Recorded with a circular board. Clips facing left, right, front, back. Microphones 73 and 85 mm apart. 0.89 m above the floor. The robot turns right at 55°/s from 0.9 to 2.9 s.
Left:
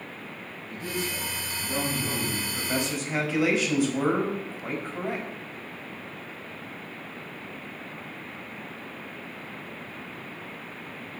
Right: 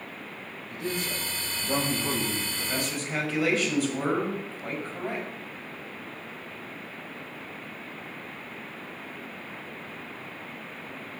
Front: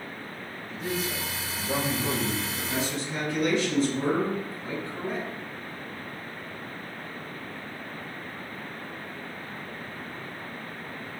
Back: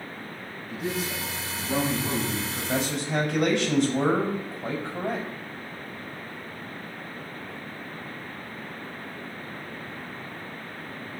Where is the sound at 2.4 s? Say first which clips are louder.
Left 2 dB, back 2 dB; 140° left, 4.5 m; by 5.3 s 165° left, 4.5 m.